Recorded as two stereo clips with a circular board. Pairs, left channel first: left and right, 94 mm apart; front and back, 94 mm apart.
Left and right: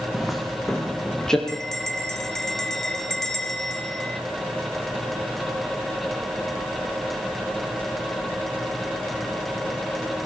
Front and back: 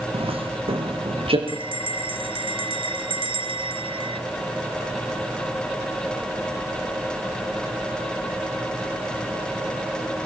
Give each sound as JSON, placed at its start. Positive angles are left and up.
{"t": 0.1, "sound": "footsteps", "azimuth_deg": 180, "distance_m": 6.0}
{"t": 1.5, "sound": "a bell", "azimuth_deg": 175, "distance_m": 2.5}